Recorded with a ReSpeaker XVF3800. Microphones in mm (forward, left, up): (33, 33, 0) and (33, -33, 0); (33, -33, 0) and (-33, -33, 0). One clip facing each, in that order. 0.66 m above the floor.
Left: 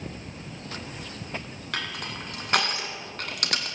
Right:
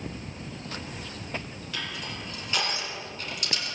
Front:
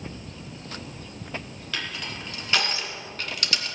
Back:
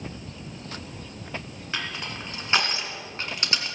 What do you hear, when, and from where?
1.7 s crushing: 120° left, 2.0 m